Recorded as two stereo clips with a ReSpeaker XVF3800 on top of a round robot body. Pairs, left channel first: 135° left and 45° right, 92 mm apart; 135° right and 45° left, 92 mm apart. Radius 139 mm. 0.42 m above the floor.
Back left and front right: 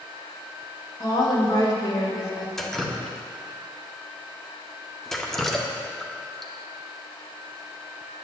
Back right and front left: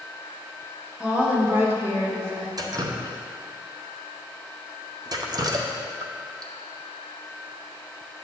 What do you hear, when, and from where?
1.0 s a woman speaking: 120° left, 1.6 m; by 2.5 s 95° left, 2.5 m
2.6 s dripping: 50° left, 0.8 m